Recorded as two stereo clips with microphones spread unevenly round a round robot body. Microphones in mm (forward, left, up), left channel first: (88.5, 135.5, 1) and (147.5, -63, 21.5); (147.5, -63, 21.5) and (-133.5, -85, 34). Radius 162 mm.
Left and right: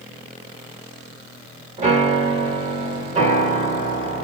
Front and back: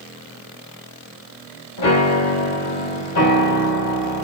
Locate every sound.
1.8 s a piano: 20° right, 1.2 m